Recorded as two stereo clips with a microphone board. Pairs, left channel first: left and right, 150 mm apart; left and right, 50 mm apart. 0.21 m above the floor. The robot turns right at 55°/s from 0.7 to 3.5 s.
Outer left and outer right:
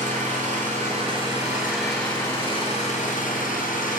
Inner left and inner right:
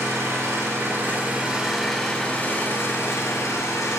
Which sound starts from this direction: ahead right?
An engine running, at 0.0 s.